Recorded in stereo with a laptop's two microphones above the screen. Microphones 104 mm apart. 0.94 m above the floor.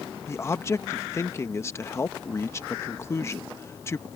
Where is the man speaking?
25° left (ahead or behind).